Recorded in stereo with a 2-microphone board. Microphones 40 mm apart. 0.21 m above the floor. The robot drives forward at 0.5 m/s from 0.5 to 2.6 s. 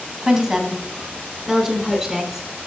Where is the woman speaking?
20° right (ahead or behind), 1.3 m; by 2.5 s 10° right (ahead or behind), 2 m.